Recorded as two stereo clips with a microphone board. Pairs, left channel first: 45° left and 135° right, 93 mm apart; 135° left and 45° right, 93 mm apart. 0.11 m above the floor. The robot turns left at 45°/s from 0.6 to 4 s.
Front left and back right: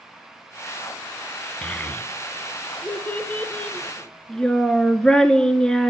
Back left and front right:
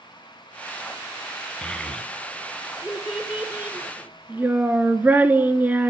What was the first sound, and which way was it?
A child speaking, 85° left.